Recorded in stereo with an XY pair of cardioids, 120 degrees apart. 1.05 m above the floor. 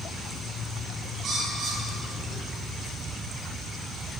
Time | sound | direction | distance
1.2 | a bird | 45° right | 6 m